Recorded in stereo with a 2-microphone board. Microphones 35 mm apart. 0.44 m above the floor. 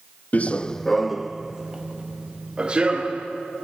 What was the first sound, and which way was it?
Running footsteps, 45° left (ahead or behind).